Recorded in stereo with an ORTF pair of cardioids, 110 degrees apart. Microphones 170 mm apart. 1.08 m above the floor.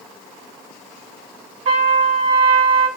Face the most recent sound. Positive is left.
turn(degrees=-45)